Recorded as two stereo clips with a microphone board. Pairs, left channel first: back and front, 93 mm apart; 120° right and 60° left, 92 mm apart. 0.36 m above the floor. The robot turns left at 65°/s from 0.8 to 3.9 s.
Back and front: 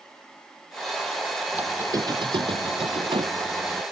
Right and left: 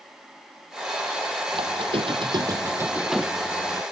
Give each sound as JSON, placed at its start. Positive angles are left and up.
{"t": 1.5, "sound": "a squeak", "azimuth_deg": 75}